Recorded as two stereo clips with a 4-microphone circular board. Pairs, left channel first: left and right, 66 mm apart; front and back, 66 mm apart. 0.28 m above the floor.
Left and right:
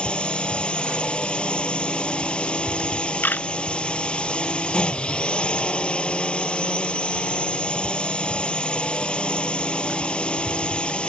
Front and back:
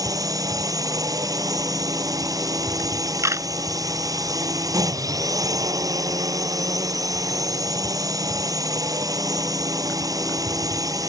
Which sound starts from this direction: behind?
A drone, at 0.0 s.